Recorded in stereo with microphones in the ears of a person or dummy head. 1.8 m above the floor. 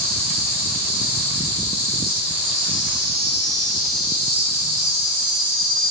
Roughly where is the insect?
Right.